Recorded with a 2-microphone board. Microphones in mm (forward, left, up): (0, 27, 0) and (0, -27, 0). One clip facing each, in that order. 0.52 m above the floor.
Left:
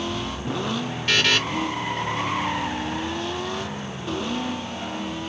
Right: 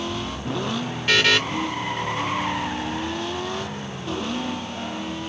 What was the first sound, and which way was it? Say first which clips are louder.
A buzzer: right 2 dB; 5° right (ahead or behind).